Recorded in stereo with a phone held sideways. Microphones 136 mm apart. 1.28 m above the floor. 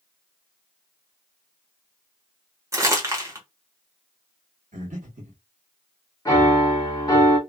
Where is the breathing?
70° right (ahead or behind), 1.1 m.